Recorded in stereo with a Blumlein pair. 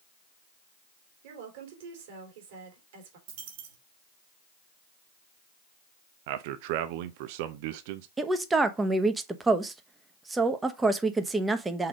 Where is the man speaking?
50° right, 0.6 m.